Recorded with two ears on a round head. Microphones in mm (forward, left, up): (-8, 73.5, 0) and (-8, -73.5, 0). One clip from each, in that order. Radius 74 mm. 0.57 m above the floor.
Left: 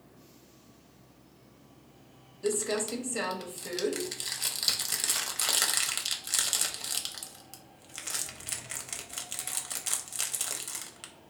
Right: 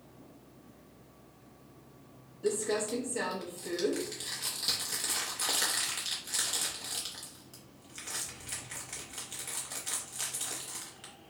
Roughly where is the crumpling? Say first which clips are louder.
Left 1 dB; left.